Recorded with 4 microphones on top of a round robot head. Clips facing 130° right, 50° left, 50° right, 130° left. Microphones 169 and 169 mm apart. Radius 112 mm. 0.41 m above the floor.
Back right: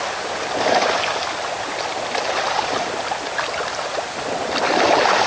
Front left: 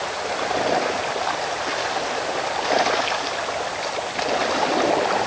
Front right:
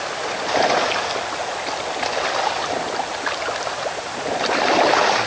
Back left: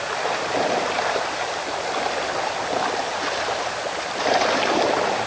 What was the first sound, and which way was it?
Only background noise.